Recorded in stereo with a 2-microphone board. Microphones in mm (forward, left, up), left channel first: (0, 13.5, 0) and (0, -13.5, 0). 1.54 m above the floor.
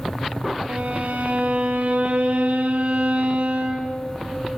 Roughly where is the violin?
Right.